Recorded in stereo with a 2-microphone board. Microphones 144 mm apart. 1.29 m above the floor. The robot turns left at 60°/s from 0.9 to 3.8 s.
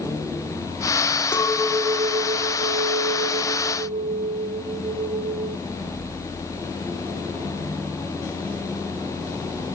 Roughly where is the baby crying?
No baby crying in this recording.